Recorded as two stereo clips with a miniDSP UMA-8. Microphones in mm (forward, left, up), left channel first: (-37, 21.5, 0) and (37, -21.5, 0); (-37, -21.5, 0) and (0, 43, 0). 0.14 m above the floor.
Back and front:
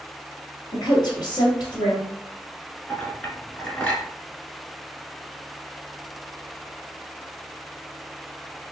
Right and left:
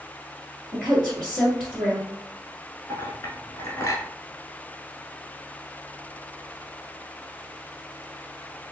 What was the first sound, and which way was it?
A woman speaking, 140° left.